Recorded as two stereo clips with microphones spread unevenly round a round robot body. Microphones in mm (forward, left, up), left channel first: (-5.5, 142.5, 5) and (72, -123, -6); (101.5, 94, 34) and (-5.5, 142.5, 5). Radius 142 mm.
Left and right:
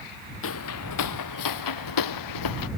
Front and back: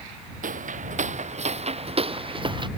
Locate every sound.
0.4 s footsteps: 150° left; by 2.7 s 105° left